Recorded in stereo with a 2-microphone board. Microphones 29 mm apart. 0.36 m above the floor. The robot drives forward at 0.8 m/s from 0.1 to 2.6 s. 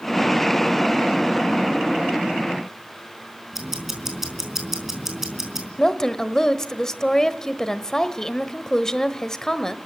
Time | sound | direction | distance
3.5 | ticking | 10° right (ahead or behind) | 4 m
5.8 | a woman speaking | 20° left (ahead or behind) | 1.2 m